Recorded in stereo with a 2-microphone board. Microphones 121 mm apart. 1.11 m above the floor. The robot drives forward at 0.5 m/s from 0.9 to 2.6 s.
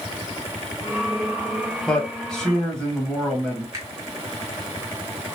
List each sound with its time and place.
1.9 s a man speaking: 5° left (ahead or behind), 1.2 m
3.7 s a finger snap: 25° right (ahead or behind), 1.8 m